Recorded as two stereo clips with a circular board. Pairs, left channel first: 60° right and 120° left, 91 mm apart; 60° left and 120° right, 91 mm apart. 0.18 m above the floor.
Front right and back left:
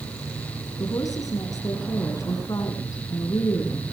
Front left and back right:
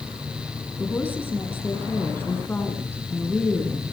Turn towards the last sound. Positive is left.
turn(degrees=-5)